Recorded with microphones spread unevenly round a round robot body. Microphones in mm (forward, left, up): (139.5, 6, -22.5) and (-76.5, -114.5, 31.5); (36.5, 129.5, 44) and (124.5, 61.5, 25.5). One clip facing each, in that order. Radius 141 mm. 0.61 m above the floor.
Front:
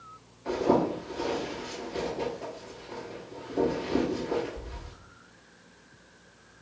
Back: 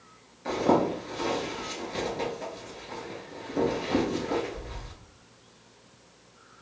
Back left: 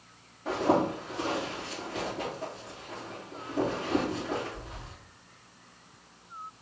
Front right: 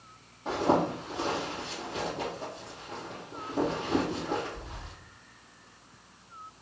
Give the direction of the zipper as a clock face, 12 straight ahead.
4 o'clock.